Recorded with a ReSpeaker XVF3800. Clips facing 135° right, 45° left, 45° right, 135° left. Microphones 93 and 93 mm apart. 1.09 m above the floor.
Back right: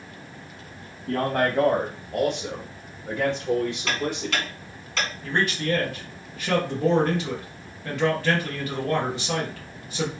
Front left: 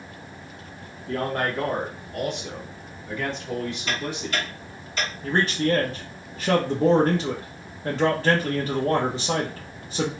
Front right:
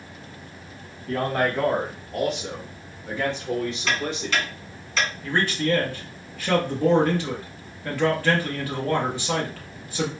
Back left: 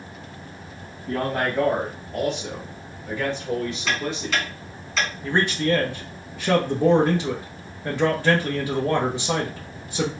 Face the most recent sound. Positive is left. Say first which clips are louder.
# front left 4 dB, back left 3 dB
turn(degrees=75)